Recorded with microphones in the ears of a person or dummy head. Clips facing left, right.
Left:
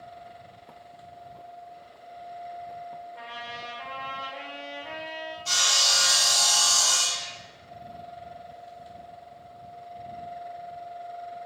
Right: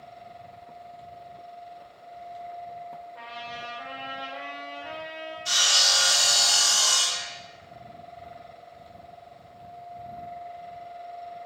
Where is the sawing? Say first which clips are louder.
Right 1 dB; 15° right (ahead or behind), 0.5 m.